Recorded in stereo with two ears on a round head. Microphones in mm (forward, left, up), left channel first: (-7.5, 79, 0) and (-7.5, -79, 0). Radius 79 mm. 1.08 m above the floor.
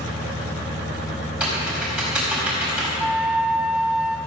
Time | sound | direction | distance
1.4 | typing on a keyboard | 5° right (ahead or behind) | 4.5 m
3.0 | a flute | 5° right (ahead or behind) | 0.7 m